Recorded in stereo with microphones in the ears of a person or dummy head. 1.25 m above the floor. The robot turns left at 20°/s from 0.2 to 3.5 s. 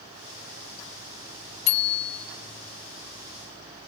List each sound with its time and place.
1.7 s a bicycle bell: 70° left (ahead or behind), 2.5 m; by 2.3 s 80° left, 2.5 m